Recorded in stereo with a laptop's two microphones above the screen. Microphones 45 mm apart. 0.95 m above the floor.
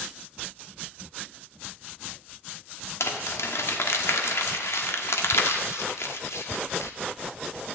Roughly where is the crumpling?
Left.